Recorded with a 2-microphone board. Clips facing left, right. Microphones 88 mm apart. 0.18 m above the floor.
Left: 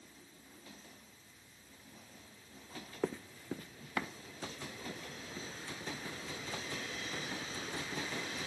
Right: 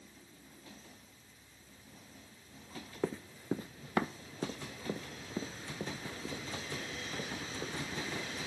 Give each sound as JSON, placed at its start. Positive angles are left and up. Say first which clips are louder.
{"t": 3.0, "sound": "running footsteps", "louder": "right 2 dB", "side_deg": 5, "distance_m": 0.6}